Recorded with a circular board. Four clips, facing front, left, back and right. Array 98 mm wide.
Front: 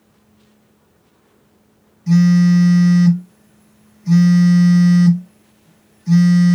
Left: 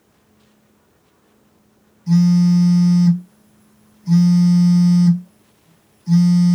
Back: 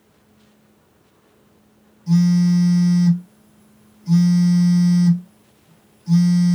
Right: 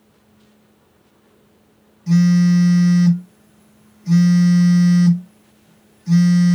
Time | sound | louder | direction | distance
2.1 | a phone buzzing | even, front 4 dB | 30° right | 2.5 m